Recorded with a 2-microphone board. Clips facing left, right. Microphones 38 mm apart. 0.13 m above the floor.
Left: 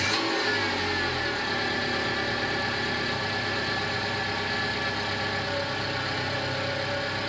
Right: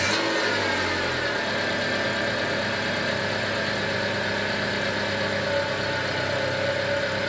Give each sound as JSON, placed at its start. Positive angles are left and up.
{"t": 0.0, "sound": "an engine running", "side_deg": -65, "distance_m": 4.0}